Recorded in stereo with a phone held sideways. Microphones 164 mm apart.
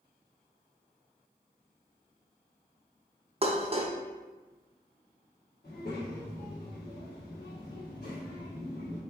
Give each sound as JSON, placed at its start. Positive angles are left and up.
{"t": 3.4, "sound": "dishes clattering", "side_deg": -35, "distance_m": 0.6}
{"t": 5.6, "sound": "a child speaking", "side_deg": 55, "distance_m": 1.5}